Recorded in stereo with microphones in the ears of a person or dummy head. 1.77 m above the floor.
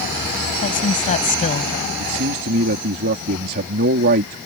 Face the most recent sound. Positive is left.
turn(degrees=-50)  # may be behind; listen again after turning